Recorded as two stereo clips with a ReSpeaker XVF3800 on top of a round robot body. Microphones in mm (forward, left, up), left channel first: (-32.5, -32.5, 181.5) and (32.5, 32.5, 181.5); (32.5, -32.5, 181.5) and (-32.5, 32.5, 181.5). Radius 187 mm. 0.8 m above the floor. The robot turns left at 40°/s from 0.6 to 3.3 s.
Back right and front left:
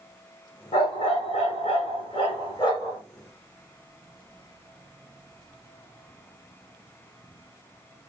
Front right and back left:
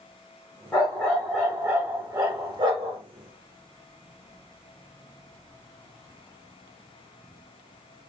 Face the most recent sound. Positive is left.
turn(degrees=140)